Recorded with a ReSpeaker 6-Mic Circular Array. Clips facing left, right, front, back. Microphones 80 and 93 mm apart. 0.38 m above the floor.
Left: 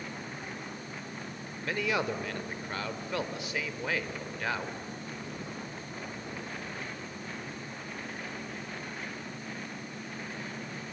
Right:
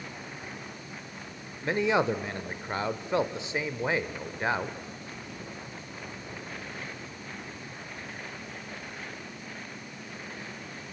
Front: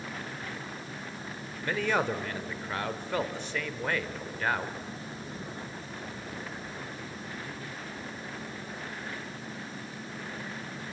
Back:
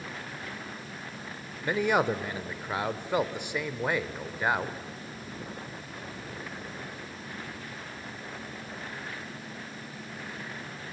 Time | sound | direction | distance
1.6 | a man speaking | 120° right | 0.9 m